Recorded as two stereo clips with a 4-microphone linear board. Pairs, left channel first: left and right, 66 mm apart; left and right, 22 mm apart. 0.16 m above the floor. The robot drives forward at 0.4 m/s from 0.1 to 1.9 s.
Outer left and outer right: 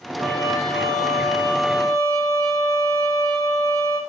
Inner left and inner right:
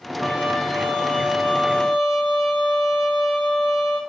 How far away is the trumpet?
About 9.5 m.